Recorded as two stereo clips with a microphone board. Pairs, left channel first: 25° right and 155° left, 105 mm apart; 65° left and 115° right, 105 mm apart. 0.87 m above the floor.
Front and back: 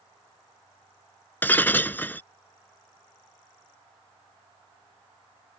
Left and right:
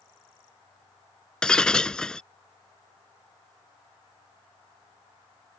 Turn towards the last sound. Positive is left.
turn(degrees=5)